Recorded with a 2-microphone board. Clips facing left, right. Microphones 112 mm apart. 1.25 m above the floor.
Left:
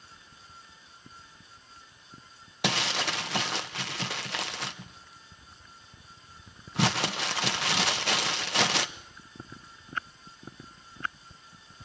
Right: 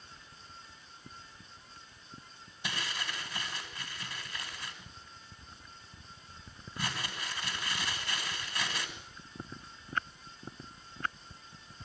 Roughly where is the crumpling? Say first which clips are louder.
Left 9 dB; left.